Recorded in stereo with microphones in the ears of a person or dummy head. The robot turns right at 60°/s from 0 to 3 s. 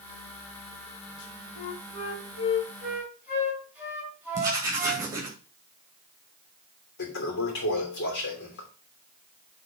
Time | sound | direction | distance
1.6 | a flute | 95° left | 4 m
4.3 | writing | 10° right (ahead or behind) | 2.5 m
7.0 | a toilet flushing | 65° left (ahead or behind) | 2.5 m